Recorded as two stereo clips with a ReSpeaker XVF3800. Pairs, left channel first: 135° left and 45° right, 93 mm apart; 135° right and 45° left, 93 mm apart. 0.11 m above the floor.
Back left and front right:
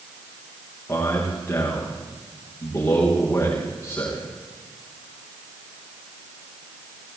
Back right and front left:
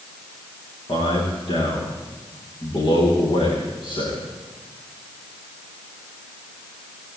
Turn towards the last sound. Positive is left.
turn(degrees=-165)